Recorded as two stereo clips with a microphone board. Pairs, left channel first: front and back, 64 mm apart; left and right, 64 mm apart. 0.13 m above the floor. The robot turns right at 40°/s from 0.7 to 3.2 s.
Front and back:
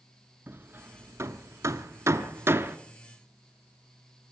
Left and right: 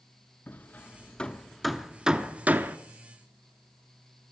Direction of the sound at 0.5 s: 140° left.